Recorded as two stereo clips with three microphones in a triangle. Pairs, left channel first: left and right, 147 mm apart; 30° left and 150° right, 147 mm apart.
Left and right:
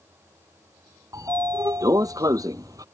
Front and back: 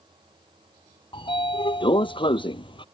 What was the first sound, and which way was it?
A sliding door, 25° right.